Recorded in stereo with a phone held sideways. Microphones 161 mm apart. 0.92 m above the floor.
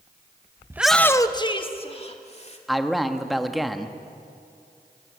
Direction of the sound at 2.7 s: Centre (ahead or behind).